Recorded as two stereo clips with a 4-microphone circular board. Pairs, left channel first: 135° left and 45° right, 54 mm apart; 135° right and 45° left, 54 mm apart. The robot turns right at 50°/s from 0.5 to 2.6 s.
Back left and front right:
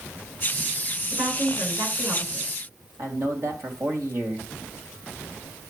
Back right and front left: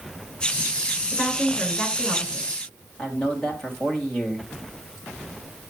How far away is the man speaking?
About 3 m.